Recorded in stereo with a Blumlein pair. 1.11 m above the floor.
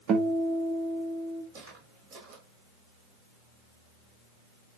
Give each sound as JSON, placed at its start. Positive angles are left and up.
{"t": 0.1, "sound": "a guitar", "azimuth_deg": -30, "distance_m": 1.2}
{"t": 1.5, "sound": "footsteps", "azimuth_deg": -50, "distance_m": 3.5}